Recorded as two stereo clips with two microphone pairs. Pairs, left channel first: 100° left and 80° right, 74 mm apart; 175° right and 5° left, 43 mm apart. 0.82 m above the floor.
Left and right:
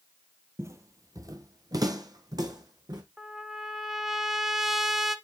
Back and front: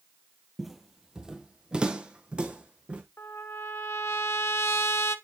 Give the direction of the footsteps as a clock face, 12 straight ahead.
3 o'clock.